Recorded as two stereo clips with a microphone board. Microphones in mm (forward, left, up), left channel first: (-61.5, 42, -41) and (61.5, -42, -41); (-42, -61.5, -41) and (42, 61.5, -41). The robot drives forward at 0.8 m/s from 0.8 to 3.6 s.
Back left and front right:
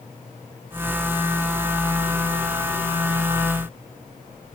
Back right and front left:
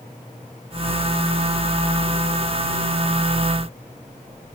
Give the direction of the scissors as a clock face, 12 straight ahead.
I don't hear scissors.